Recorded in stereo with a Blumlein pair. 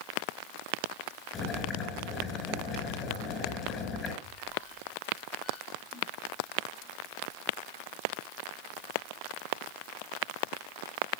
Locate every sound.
1.3 s boiling: 25° left, 6.5 m
4.2 s a squeak: 25° left, 5 m